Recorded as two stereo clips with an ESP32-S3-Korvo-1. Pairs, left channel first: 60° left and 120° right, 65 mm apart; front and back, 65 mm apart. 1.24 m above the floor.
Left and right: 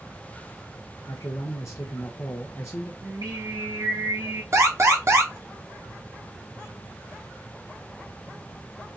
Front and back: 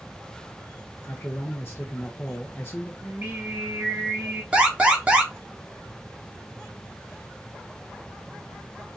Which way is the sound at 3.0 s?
120° right.